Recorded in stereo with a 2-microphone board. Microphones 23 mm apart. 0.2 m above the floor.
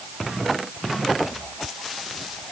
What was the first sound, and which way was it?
Only background noise.